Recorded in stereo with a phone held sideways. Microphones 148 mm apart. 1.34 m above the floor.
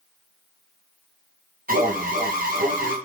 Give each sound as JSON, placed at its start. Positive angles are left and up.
{"t": 1.7, "sound": "an alarm", "side_deg": -65, "distance_m": 1.8}